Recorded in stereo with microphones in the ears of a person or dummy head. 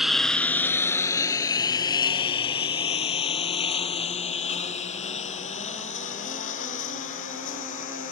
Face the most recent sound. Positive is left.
turn(degrees=45)  # may be behind; listen again after turning